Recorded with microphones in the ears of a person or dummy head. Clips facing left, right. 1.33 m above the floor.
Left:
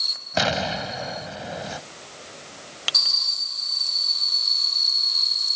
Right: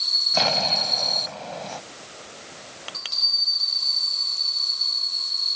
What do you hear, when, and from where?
0.4 s an explosion: 15° left (ahead or behind)